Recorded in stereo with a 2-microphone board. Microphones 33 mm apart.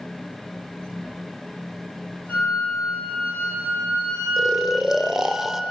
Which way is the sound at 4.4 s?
5° right (ahead or behind).